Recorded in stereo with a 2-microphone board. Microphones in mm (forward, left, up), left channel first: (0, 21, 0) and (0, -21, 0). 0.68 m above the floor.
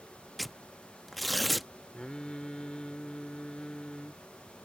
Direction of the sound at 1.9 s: 20° left (ahead or behind).